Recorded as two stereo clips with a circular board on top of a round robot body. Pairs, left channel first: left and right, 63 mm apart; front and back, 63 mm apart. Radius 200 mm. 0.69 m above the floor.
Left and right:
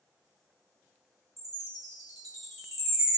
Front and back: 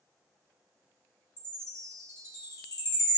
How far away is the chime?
About 1.5 m.